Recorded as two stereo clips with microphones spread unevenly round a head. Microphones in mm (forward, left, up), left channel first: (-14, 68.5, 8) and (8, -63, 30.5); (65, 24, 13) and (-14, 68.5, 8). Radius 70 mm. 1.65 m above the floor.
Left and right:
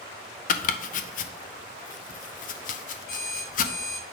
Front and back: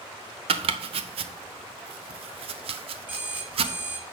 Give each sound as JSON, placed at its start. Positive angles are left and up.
{"t": 0.5, "sound": "chopping", "azimuth_deg": 135, "distance_m": 0.6}
{"t": 3.1, "sound": "an alarm clock", "azimuth_deg": 90, "distance_m": 4.0}